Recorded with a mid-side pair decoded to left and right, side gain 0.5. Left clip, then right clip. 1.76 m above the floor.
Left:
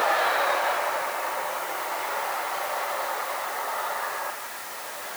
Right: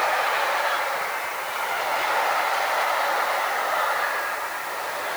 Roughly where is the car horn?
No car horn in this recording.